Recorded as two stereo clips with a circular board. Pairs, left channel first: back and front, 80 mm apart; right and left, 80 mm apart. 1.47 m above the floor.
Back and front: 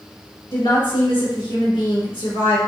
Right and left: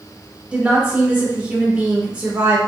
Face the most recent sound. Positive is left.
turn(degrees=170)